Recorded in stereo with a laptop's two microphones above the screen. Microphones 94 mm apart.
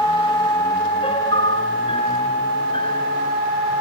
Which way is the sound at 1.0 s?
75° left (ahead or behind).